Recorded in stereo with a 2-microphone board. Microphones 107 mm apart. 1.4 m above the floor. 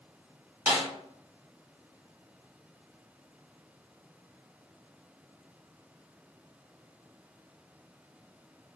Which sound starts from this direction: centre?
A snare drum, at 0.7 s.